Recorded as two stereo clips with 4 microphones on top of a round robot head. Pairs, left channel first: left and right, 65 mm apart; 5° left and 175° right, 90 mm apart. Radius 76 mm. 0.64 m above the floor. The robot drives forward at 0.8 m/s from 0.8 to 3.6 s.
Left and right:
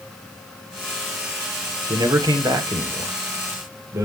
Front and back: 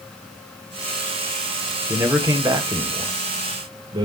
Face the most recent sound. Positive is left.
turn(degrees=-140)